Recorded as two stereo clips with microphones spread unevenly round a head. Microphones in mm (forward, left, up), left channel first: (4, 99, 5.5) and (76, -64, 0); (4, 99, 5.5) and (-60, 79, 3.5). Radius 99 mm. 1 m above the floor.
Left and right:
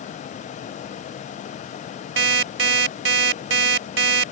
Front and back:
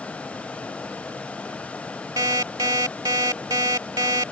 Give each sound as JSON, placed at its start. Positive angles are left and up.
{"t": 2.2, "sound": "an alarm clock", "azimuth_deg": -100}